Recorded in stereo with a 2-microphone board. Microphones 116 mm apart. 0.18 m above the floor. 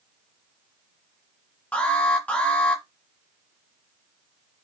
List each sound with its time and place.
1.7 s an alarm: 10° left (ahead or behind), 1.3 m